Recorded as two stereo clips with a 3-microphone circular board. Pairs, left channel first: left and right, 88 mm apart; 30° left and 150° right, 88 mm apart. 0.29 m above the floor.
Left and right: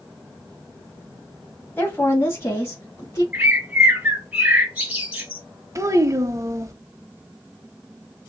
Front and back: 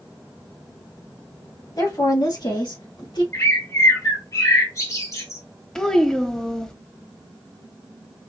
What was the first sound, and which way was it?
A woman speaking, 35° left.